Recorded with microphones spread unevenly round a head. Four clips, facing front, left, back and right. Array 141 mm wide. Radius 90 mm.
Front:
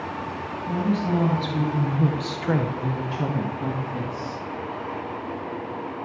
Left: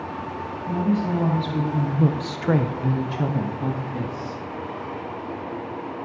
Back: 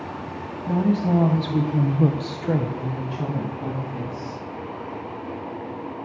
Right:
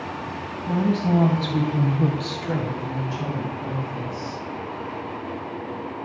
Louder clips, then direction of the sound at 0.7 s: Right 1 dB, back 3 dB; 170° right.